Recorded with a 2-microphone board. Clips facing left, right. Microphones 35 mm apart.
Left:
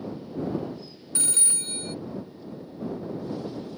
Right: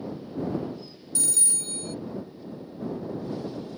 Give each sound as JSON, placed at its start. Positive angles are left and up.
{"t": 1.1, "sound": "a phone ringing", "side_deg": 35}